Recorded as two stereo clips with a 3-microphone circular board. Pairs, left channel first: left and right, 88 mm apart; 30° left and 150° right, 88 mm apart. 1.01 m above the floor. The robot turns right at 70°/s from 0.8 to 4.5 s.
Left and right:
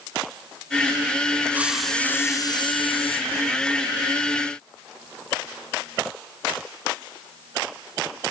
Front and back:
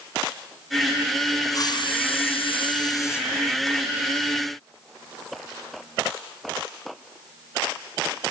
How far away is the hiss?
About 4 m.